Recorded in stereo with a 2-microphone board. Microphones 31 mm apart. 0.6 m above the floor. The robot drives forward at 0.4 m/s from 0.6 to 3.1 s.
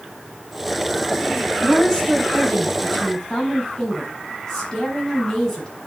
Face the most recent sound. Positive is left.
turn(degrees=20)  # may be behind; listen again after turning